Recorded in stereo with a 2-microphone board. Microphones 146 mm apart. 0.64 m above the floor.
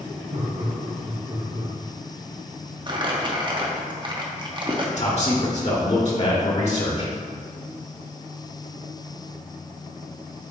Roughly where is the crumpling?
Right.